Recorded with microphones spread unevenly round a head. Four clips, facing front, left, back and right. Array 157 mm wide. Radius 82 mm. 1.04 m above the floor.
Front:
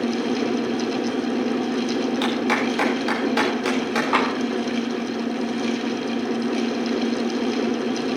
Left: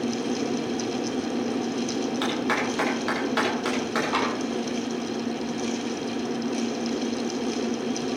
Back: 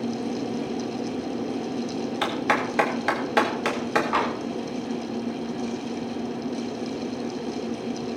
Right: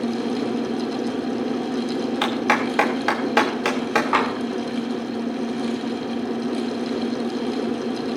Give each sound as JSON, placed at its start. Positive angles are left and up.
{"t": 2.2, "sound": "a clap", "azimuth_deg": -105, "distance_m": 3.0}
{"t": 4.1, "sound": "tapping", "azimuth_deg": -50, "distance_m": 3.5}